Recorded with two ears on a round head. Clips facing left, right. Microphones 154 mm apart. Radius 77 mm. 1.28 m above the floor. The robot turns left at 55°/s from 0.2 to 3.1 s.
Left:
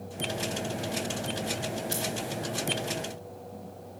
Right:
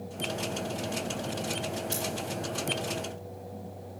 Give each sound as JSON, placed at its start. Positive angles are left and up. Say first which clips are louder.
{"t": 1.9, "sound": "scissors", "louder": "left 1 dB", "side_deg": 20, "distance_m": 9.5}